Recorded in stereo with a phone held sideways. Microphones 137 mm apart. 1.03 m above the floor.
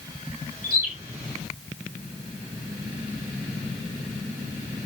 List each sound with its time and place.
0.6 s a bird: 80° right, 4.5 m